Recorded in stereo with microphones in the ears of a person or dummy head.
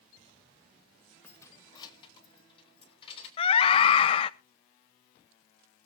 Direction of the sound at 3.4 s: 30° left (ahead or behind).